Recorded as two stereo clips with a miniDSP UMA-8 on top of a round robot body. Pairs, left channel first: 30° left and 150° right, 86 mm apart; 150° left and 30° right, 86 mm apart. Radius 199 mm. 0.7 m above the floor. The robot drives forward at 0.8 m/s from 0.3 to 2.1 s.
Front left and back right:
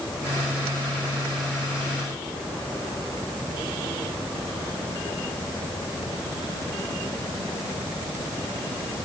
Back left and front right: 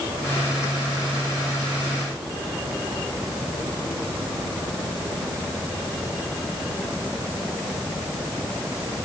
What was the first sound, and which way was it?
Only background noise.